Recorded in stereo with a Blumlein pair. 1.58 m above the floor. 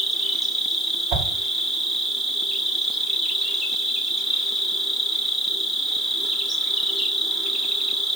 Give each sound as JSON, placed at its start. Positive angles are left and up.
{"t": 0.0, "sound": "an insect", "azimuth_deg": 0, "distance_m": 0.9}
{"t": 1.1, "sound": "a whoosh", "azimuth_deg": -40, "distance_m": 1.2}